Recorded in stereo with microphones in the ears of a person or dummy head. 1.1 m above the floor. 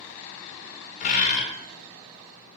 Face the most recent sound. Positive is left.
turn(degrees=40)  # may be behind; listen again after turning